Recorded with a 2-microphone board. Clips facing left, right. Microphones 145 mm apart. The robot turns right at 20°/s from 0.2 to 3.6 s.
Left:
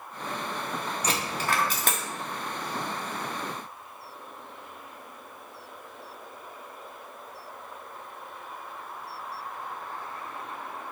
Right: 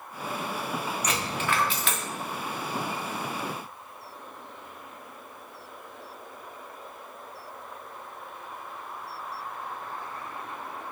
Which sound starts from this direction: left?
A dropped coin, at 1.0 s.